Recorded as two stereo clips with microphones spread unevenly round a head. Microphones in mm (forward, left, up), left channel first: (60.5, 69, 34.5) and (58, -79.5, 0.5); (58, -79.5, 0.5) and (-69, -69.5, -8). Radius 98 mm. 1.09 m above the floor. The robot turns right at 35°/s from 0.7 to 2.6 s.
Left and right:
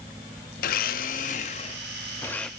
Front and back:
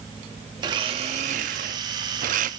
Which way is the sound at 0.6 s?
110° left.